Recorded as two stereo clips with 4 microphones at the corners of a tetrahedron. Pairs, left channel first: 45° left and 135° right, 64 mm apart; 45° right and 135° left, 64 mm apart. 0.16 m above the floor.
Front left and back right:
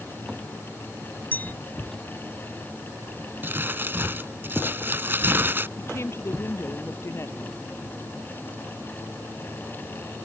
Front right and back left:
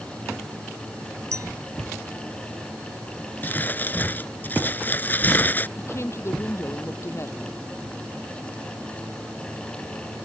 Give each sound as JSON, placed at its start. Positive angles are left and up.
{"t": 1.3, "sound": "a clink", "azimuth_deg": 105}
{"t": 3.4, "sound": "crumpling", "azimuth_deg": -95}
{"t": 5.8, "sound": "a woman speaking", "azimuth_deg": 0}